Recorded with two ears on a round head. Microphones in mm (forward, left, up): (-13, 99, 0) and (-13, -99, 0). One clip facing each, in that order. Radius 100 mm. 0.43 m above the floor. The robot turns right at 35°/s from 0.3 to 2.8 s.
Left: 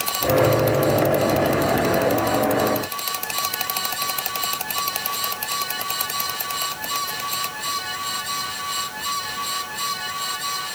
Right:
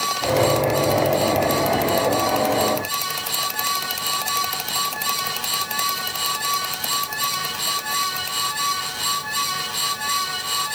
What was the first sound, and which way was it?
Only background noise.